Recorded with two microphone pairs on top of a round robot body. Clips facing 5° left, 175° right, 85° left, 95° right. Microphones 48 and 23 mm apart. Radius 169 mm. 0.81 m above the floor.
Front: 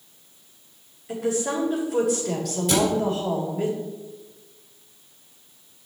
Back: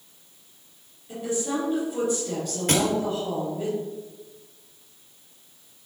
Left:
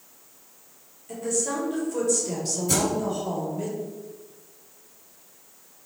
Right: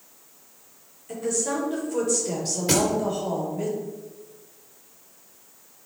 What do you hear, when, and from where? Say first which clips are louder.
1.1 s a woman speaking: front 3 dB, right 1 dB; 15° right, 4 m
2.7 s a thud: front 2 dB, right 3 dB; 130° right, 3 m